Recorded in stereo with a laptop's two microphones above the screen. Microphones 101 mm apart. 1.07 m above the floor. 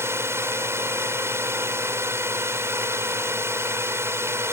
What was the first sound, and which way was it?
A drone, 25° right (ahead or behind).